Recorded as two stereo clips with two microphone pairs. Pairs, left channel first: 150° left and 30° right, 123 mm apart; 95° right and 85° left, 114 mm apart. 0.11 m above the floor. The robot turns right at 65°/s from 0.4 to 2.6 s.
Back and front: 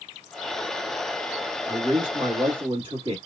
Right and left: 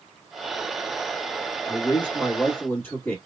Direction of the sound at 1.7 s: 95° right.